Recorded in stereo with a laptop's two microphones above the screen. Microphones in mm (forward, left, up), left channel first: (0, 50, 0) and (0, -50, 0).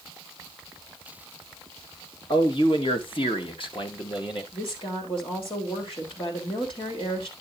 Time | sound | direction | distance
2.3 | a man speaking | 55° left (ahead or behind) | 1.3 m
4.5 | a woman speaking | 65° left (ahead or behind) | 3 m